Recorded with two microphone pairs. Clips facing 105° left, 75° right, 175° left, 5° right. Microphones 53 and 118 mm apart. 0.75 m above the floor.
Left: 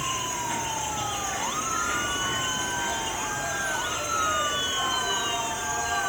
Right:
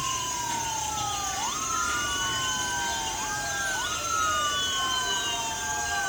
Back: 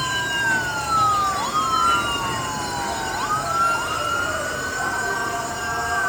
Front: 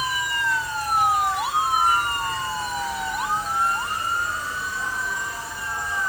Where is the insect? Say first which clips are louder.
Left 1 dB, back 1 dB; 165° left.